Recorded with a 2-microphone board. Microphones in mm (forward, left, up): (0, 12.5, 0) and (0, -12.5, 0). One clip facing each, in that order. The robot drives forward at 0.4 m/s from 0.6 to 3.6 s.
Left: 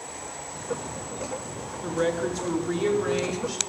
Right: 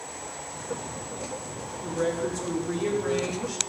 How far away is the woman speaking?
About 0.6 m.